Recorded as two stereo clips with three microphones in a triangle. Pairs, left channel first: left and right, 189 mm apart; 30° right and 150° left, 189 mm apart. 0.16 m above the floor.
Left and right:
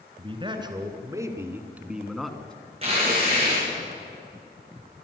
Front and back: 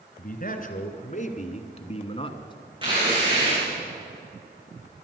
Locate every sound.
0.2 s a man speaking: 40° right, 2.5 m; by 2.5 s 10° left, 1.8 m
2.8 s tearing paper: 145° right, 9 m